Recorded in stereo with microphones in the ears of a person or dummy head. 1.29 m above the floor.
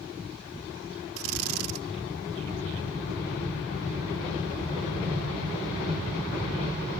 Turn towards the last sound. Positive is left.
turn(degrees=-80)